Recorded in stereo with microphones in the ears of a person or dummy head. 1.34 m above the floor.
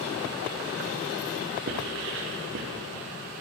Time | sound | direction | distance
1.7 | writing | 70° right (ahead or behind) | 1.1 m